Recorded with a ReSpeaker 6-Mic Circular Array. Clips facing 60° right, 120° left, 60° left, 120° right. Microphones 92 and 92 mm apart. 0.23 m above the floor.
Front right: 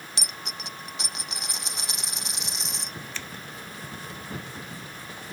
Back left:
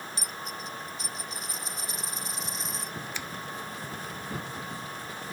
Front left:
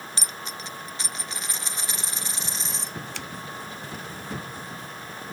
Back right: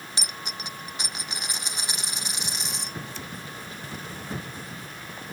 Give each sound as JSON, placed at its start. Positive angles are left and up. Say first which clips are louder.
{"t": 0.2, "sound": "a dropped coin", "louder": "back left 1 dB, back right 2 dB", "azimuth_deg": -45}
{"t": 3.1, "sound": "scissors", "louder": "back left 1 dB, front left 2 dB", "azimuth_deg": 40}